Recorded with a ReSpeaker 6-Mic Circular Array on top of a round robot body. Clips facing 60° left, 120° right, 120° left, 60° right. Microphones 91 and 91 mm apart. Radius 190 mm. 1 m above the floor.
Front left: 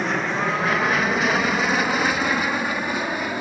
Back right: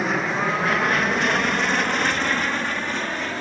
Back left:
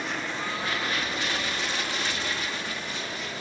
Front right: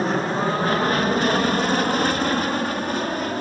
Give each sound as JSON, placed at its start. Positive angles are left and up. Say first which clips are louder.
{"t": 0.0, "sound": "an aircraft", "louder": "even, front right 10 dB", "azimuth_deg": -35}